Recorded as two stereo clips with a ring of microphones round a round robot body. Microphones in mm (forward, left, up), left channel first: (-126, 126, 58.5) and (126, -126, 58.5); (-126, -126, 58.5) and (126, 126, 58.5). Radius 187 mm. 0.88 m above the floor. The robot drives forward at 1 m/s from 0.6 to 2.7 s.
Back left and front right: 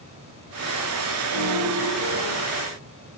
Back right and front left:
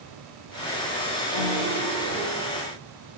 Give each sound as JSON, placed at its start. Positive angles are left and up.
{"t": 1.3, "sound": "a piano", "azimuth_deg": -115, "distance_m": 7.0}